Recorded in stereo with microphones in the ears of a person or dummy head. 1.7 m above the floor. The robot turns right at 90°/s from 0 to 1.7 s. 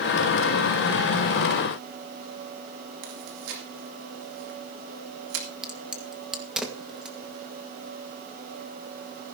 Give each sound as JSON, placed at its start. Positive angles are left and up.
{"t": 3.0, "sound": "chewing", "side_deg": -65, "distance_m": 2.0}
{"t": 5.6, "sound": "a crack", "side_deg": 0, "distance_m": 1.6}